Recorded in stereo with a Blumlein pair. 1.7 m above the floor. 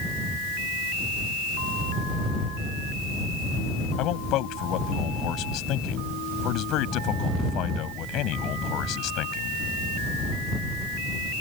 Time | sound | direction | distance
4.0 | a man speaking | 35° left | ?